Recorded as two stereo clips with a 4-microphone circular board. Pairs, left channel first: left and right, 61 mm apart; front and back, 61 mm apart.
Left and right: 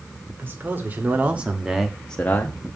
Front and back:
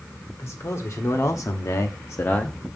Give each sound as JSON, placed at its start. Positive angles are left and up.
{"t": 0.4, "sound": "a man speaking", "azimuth_deg": -40, "distance_m": 2.0}